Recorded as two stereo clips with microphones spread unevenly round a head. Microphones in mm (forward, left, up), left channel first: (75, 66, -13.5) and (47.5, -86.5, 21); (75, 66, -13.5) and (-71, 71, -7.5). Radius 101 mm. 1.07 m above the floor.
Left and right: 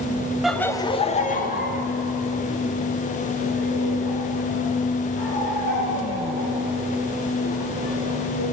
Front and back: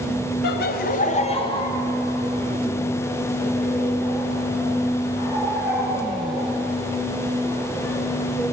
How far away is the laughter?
About 0.8 m.